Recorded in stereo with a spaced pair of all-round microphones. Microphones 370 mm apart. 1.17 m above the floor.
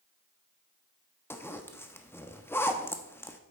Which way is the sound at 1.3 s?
5° left (ahead or behind).